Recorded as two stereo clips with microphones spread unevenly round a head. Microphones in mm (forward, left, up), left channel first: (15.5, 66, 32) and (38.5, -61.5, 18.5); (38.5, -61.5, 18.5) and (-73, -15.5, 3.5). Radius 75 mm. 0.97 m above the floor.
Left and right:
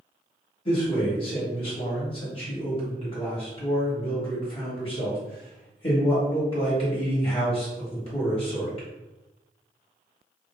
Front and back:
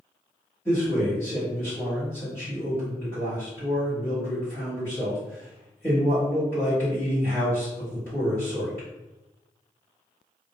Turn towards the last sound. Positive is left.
turn(degrees=55)